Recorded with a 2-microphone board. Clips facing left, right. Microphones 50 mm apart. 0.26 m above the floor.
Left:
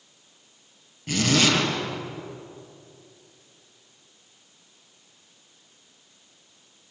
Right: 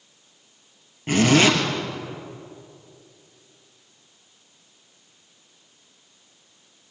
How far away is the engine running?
I don't hear an engine running.